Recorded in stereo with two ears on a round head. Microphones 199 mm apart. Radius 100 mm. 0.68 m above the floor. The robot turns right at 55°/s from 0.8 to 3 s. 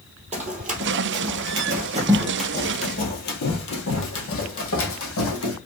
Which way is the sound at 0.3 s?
30° right (ahead or behind).